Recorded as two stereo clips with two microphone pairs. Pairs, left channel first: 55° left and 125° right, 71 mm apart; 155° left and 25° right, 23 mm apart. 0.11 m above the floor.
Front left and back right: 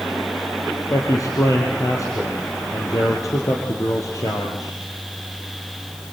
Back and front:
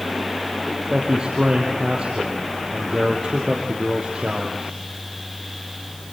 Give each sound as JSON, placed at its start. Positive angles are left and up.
{"t": 0.9, "sound": "a man speaking", "azimuth_deg": 25, "distance_m": 3.0}